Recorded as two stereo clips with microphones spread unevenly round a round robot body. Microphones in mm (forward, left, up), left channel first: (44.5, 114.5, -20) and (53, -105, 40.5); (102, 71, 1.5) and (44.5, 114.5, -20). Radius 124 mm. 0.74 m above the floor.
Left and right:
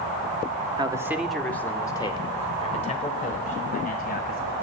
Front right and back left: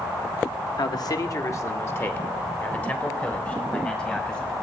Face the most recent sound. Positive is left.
turn(degrees=40)